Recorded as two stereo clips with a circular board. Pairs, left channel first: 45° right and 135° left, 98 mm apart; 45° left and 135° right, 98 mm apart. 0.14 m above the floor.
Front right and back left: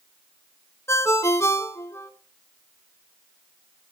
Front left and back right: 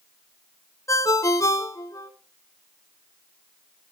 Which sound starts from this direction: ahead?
A ringtone, at 0.9 s.